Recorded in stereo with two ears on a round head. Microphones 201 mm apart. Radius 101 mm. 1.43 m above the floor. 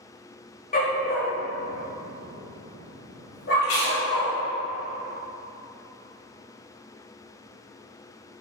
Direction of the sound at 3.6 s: 60° left (ahead or behind).